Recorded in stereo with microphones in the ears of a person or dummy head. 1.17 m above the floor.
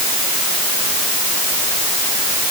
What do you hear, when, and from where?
Only background noise.